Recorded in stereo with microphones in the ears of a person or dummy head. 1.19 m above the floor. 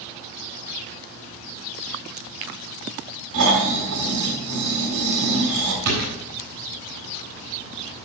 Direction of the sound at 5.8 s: 60° right (ahead or behind).